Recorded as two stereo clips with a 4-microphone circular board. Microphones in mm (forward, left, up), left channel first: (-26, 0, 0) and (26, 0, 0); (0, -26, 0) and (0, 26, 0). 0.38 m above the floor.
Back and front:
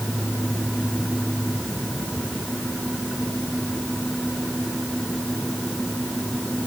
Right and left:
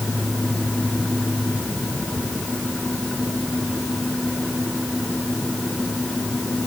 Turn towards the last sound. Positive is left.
No sound to turn to.